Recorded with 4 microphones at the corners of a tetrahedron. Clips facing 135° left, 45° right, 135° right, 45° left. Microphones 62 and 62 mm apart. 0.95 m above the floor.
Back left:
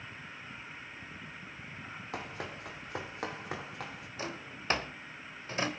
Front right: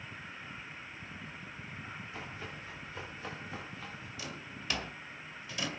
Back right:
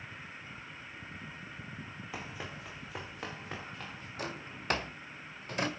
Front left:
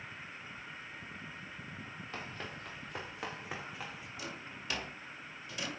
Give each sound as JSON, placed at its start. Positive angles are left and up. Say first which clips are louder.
{"t": 2.1, "sound": "running footsteps", "louder": "back left 3 dB, back right 1 dB", "azimuth_deg": 145, "distance_m": 3.0}
{"t": 4.2, "sound": "a drawer", "louder": "back left 6 dB, back right 6 dB", "azimuth_deg": -175, "distance_m": 1.8}